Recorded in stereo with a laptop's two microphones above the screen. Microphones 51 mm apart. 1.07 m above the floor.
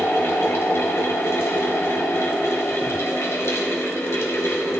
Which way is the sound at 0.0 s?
65° left (ahead or behind).